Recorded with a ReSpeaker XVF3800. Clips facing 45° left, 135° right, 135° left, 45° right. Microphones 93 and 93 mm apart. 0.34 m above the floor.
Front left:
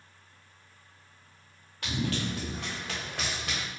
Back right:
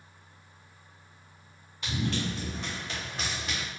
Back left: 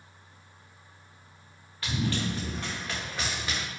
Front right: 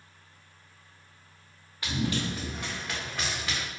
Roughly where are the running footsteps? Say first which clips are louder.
Even, even; ahead left.